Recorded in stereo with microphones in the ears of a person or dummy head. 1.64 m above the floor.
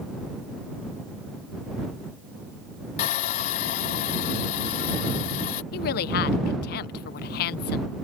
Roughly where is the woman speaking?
Left.